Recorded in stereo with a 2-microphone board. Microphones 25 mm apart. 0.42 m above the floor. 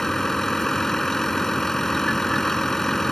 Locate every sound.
0.0 s a vehicle: 15° left (ahead or behind)